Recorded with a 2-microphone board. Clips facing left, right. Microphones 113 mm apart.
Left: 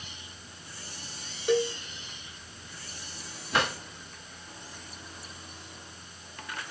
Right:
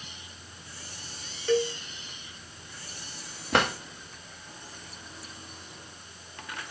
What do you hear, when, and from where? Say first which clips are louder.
1.5 s a cowbell: even; 15° left (ahead or behind), 1.0 m
3.5 s a drawer: right 3 dB; 65° right (ahead or behind), 1.4 m